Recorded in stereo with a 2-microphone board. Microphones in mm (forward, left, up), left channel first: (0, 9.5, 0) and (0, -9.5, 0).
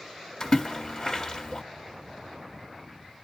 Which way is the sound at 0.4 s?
25° left (ahead or behind).